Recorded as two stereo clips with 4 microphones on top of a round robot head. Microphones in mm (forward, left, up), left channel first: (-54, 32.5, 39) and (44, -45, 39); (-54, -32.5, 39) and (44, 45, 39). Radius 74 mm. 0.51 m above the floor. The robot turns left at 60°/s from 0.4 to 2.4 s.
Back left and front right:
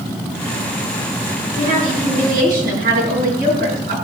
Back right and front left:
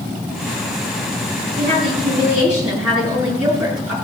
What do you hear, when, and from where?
1.6 s a woman speaking: 5° left, 7.5 m; by 4.0 s 45° right, 7.5 m